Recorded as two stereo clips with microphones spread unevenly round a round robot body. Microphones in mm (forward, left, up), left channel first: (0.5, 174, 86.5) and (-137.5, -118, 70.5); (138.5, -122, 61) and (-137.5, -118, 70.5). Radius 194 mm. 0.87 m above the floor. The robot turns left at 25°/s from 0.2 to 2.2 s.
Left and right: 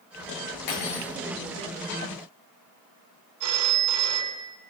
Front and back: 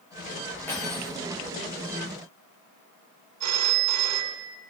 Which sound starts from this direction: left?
Cutlery clinking, at 0.7 s.